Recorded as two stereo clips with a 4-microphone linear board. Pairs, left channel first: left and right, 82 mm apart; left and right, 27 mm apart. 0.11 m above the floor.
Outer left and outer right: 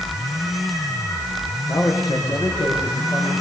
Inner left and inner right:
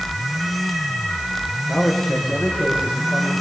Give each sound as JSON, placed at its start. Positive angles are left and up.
{"t": 1.7, "sound": "a man speaking", "side_deg": 45, "distance_m": 8.0}